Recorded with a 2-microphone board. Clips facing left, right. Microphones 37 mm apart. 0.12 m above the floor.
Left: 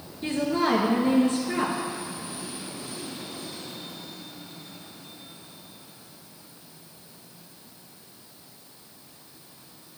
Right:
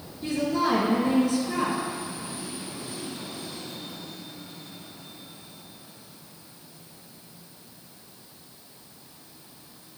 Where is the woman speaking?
35° left (ahead or behind), 1.5 m.